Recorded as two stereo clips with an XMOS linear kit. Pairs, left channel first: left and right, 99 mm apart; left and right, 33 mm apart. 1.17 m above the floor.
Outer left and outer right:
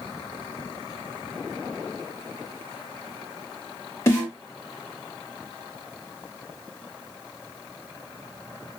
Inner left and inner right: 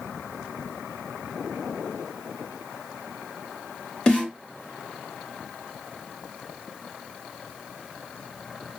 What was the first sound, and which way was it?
A snare drum, 30° left (ahead or behind).